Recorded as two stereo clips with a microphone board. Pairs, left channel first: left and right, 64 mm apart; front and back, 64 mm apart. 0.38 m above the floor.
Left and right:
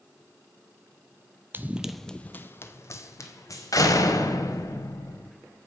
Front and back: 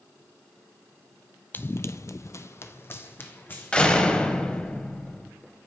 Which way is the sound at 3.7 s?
75° left.